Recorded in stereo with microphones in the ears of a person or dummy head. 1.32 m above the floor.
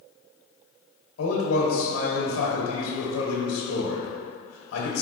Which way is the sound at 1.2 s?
70° left (ahead or behind).